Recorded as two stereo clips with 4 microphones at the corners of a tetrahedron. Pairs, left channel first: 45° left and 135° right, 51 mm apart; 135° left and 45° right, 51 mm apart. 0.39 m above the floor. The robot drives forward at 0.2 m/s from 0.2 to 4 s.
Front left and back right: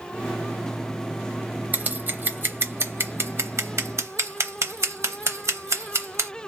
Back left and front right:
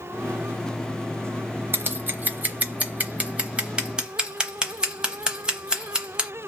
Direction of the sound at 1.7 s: 85° right.